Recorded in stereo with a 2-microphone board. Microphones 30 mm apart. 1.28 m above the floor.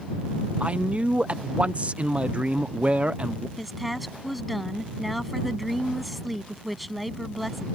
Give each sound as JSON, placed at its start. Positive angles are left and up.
{"t": 0.6, "sound": "a man speaking", "side_deg": -40}
{"t": 3.6, "sound": "a woman speaking", "side_deg": 0}